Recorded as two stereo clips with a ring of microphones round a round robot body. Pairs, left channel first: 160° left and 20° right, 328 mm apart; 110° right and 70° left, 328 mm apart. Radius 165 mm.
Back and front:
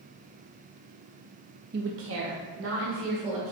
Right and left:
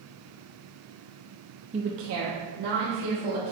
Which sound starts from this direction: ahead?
A woman speaking, at 1.7 s.